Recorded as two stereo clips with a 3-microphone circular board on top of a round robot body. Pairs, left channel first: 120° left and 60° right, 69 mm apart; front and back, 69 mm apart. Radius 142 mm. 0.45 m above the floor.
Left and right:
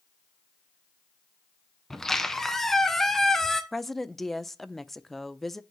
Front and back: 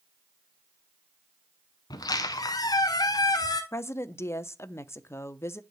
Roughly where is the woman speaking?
Ahead left.